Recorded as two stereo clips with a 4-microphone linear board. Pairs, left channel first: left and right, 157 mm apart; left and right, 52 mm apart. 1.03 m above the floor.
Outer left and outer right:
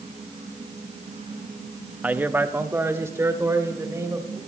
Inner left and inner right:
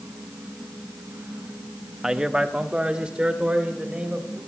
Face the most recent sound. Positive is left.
turn(degrees=-20)  # may be behind; listen again after turning